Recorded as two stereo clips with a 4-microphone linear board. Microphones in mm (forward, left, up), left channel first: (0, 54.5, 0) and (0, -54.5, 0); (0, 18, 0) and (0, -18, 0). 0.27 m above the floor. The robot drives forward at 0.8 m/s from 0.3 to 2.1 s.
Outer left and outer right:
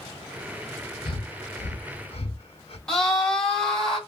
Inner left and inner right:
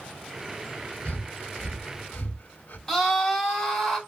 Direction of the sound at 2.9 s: 5° left (ahead or behind).